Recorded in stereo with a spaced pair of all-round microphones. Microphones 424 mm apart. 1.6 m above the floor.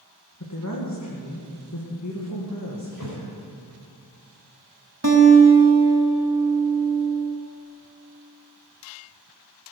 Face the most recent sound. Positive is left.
turn(degrees=-40)  # may be behind; listen again after turning